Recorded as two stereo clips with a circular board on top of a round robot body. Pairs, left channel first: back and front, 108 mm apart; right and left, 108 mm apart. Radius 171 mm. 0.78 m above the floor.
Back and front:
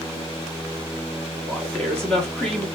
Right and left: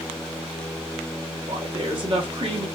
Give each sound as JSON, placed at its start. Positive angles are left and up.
{"t": 1.5, "sound": "a woman speaking", "azimuth_deg": 100, "distance_m": 1.2}